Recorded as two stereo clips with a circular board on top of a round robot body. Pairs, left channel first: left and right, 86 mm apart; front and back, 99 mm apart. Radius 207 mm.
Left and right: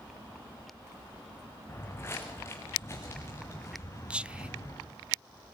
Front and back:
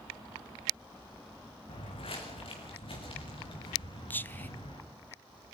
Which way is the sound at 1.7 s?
25° left.